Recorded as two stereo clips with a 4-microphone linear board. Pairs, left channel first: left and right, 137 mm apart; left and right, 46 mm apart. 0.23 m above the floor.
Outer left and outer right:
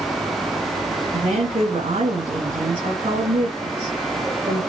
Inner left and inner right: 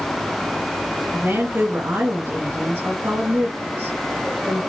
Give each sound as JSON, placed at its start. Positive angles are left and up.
{"t": 1.1, "sound": "a woman speaking", "side_deg": -55, "distance_m": 2.5}